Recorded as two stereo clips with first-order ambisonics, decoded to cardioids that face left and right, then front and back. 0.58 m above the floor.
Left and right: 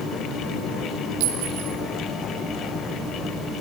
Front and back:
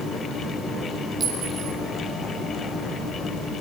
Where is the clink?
110° right, 5 m.